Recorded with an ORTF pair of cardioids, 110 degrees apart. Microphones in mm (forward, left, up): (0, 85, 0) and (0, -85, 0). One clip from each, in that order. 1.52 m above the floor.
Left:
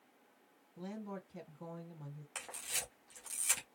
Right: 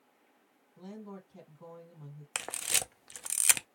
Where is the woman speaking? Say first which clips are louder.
Left 1 dB; 25° left, 1.9 m.